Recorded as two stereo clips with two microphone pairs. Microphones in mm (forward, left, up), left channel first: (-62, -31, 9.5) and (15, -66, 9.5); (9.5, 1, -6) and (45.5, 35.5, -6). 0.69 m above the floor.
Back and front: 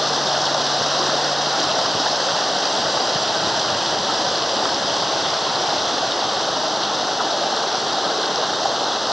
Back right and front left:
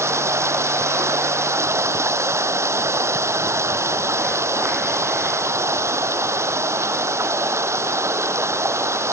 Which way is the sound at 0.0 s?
65° left.